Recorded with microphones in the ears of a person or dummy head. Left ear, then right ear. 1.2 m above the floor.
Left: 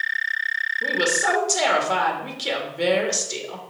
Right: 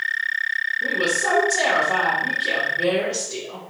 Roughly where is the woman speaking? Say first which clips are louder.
Left 2 dB; left.